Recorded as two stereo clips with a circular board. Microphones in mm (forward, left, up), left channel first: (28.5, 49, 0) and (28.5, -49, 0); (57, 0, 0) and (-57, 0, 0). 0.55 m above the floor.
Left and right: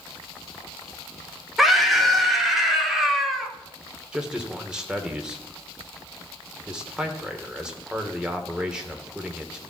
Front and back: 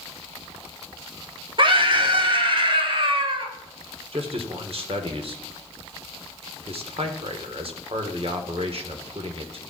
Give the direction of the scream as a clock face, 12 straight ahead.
6 o'clock.